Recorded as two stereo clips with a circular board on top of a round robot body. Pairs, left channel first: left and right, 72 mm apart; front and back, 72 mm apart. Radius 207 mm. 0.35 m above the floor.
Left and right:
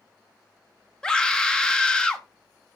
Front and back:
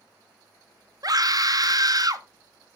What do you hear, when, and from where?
1.0 s a scream: 165° left, 1.7 m